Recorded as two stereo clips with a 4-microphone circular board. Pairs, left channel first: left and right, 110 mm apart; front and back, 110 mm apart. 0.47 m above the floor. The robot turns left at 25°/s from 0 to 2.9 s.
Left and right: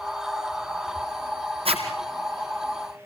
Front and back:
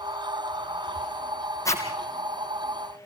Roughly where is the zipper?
Ahead right.